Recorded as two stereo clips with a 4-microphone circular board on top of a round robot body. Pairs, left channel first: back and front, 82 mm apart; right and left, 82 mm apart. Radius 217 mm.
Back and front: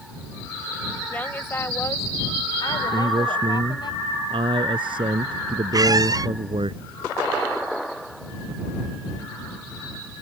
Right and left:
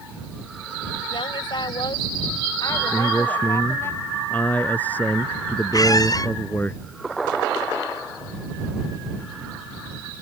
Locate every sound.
1.1 s a woman speaking: 110° right; by 3.9 s 150° right
2.9 s a man speaking: 20° right
5.7 s a squeak: 45° right